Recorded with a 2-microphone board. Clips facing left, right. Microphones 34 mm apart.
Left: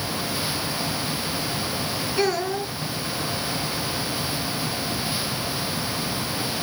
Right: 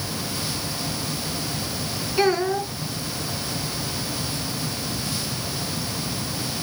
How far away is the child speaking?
About 1.1 m.